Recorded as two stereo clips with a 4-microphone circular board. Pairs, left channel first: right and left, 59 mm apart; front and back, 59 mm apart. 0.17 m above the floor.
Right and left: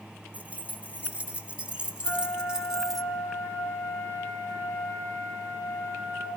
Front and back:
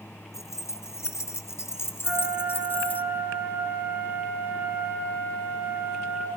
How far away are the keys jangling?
About 2.5 m.